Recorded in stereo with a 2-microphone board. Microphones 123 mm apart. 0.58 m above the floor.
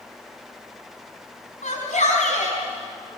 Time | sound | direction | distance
1.6 | a shout | 80° left | 5 m